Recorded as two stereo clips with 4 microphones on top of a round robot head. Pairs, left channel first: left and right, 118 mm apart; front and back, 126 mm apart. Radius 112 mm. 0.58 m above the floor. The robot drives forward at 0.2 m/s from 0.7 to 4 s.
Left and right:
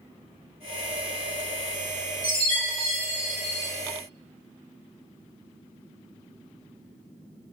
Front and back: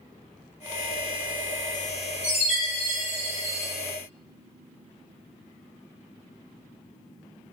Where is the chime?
95° right, 1.6 m; by 3.7 s 110° right, 1.7 m.